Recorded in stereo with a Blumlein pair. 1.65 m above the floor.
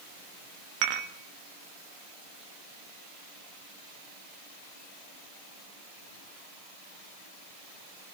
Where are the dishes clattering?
45° right, 2 m.